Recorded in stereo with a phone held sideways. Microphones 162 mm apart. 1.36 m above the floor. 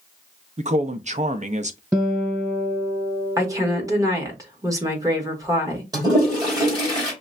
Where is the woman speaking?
20° right (ahead or behind), 1.5 m.